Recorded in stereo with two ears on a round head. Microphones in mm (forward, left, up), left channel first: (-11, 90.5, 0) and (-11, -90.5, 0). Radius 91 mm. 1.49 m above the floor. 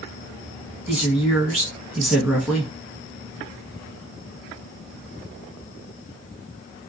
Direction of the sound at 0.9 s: 15° right (ahead or behind).